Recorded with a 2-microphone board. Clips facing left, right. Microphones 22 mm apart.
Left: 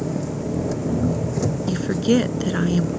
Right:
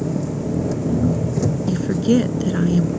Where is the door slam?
No door slam in this recording.